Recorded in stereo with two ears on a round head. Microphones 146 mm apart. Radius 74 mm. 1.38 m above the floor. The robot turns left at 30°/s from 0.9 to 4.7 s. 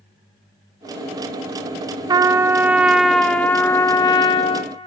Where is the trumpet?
150° right, 0.6 m; by 4.7 s 130° left, 0.6 m.